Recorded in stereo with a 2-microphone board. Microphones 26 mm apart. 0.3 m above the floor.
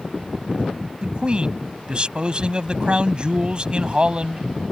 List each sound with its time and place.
1.0 s a man speaking: 40° right (ahead or behind)